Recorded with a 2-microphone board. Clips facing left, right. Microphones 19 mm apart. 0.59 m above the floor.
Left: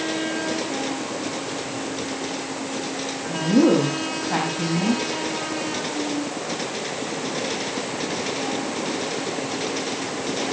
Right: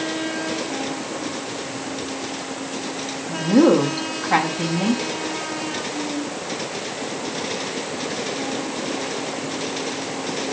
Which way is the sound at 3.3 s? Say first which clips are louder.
Right 2 dB; 25° right (ahead or behind).